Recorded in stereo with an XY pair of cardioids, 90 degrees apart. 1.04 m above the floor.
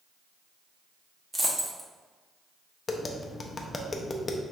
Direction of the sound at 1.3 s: 15° right.